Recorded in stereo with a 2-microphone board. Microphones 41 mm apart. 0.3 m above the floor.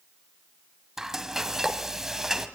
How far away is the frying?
About 1.7 m.